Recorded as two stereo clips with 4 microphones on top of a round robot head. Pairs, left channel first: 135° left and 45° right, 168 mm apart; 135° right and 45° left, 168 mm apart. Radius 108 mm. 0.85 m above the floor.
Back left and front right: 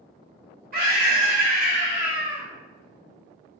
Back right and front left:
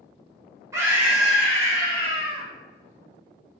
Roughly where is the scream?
Ahead right.